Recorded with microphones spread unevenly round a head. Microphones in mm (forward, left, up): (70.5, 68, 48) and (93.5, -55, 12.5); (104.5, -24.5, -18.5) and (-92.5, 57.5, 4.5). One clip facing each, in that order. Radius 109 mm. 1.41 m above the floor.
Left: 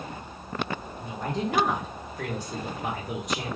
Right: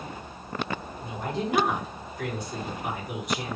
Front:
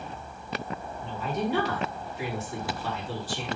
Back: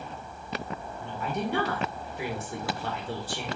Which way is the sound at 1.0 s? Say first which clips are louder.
Left 1 dB, front 2 dB; 115° left.